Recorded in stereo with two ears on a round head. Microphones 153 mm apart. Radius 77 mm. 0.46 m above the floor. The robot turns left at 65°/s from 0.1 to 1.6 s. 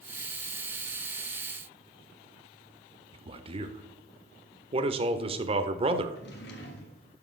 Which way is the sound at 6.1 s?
70° left (ahead or behind).